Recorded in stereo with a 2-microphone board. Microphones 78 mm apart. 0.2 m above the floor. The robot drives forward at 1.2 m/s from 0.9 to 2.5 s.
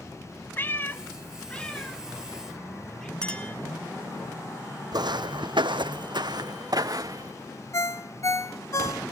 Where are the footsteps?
60° right (ahead or behind), 0.7 m; by 7.3 s 45° right (ahead or behind), 1.3 m.